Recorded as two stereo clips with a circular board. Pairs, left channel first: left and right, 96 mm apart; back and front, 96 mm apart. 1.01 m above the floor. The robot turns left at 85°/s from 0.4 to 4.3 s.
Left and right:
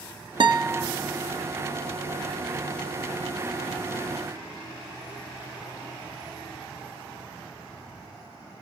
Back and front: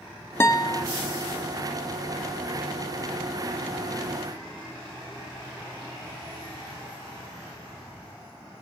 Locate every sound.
0.4 s a guitar: 115° right, 0.6 m; by 0.8 s 155° right, 0.6 m